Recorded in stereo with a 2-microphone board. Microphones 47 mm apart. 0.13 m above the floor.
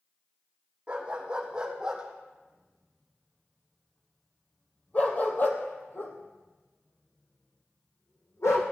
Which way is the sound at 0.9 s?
20° right (ahead or behind).